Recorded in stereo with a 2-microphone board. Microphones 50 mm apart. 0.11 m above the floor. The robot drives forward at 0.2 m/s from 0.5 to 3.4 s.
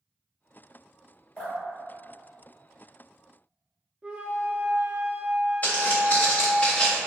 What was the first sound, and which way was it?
Dripping, 30° left (ahead or behind).